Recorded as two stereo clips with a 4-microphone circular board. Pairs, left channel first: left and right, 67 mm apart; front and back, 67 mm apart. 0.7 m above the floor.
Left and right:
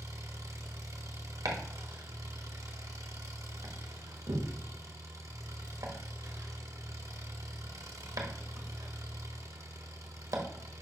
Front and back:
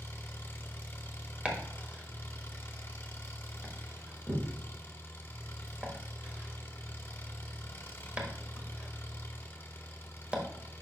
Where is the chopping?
110° right, 1.3 m.